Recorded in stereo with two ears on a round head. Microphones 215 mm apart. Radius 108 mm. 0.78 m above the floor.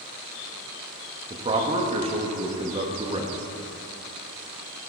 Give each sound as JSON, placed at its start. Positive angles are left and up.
{"t": 1.3, "sound": "a man speaking", "side_deg": -25, "distance_m": 1.0}